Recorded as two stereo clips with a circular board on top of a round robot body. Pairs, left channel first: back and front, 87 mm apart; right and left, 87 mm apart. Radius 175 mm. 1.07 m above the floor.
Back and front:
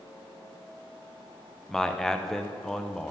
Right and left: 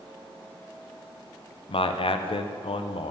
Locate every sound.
1.7 s a man speaking: 95° right, 0.7 m